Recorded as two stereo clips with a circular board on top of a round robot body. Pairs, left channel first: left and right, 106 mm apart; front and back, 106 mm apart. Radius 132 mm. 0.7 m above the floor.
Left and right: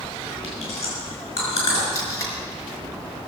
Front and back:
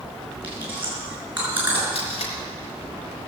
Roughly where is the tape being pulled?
Ahead left.